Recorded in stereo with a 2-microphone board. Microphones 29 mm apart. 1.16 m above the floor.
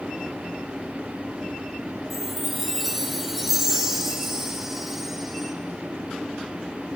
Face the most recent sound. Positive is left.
turn(degrees=-10)  # may be behind; listen again after turning